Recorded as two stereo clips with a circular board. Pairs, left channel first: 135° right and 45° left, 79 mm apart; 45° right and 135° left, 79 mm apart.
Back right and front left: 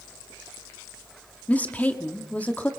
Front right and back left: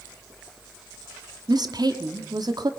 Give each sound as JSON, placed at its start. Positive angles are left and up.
{"t": 1.5, "sound": "a woman speaking", "azimuth_deg": 155, "distance_m": 1.7}